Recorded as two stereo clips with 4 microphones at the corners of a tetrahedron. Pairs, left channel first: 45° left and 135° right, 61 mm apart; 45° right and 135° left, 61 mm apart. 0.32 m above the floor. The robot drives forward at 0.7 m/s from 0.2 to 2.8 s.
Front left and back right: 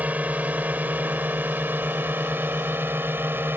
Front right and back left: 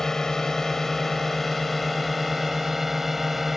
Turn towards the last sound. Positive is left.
turn(degrees=-140)